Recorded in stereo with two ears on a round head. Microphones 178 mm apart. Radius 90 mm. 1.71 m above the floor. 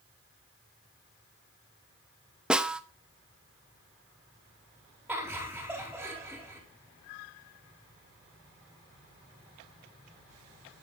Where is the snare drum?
5° right (ahead or behind), 1.0 m.